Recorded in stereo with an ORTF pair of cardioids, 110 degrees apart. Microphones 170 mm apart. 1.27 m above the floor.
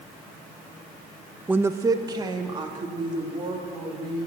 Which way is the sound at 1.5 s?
10° right.